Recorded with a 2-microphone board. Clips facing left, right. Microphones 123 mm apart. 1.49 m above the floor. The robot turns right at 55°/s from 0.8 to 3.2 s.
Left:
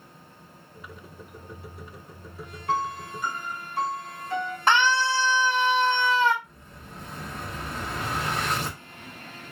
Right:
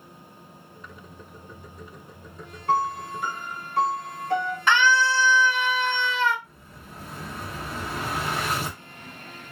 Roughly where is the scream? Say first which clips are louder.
Right 1 dB; left.